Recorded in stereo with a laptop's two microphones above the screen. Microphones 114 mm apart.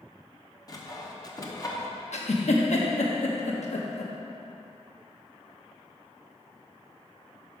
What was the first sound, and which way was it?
Sawing, 30° left (ahead or behind).